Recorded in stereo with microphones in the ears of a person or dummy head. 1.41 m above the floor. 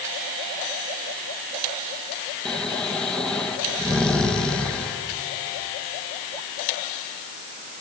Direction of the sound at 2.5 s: 5° left (ahead or behind).